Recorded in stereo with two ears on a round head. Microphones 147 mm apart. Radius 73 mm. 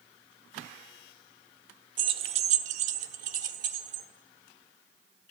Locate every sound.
2.0 s keys jangling: 30° right (ahead or behind), 0.5 m; by 4.0 s 45° right (ahead or behind), 1.3 m